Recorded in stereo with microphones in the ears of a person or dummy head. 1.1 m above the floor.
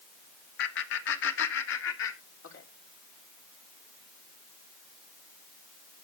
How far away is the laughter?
About 2 m.